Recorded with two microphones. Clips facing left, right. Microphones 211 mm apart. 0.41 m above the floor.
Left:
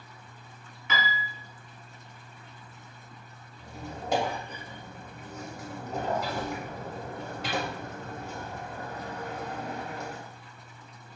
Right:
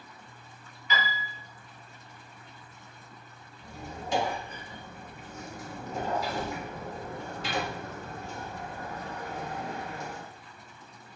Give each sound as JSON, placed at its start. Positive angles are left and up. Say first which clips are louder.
{"t": 0.9, "sound": "a piano", "louder": "left 1 dB", "side_deg": 75, "distance_m": 1.0}
{"t": 3.6, "sound": "a squeak", "louder": "left 2 dB", "side_deg": 65, "distance_m": 1.3}